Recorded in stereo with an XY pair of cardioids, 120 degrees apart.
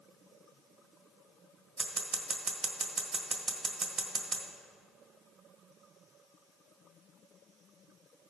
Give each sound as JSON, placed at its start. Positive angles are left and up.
{"t": 1.8, "sound": "scissors", "azimuth_deg": -45, "distance_m": 1.4}